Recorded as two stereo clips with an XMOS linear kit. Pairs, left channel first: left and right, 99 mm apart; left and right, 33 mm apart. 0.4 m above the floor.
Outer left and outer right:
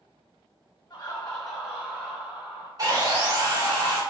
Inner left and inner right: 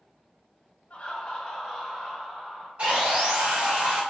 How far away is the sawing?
About 1.4 m.